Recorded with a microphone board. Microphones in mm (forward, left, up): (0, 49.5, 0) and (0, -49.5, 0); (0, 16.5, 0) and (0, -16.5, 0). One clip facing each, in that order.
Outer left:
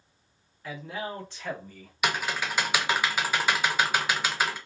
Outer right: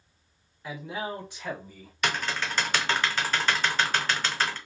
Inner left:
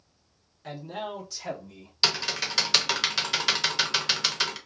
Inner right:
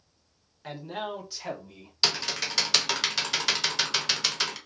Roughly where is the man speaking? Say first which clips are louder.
Outer right 1 dB, inner right 1 dB; centre.